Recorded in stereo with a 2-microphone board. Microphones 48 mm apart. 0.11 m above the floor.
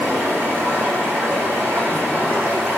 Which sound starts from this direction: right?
Running water, at 0.0 s.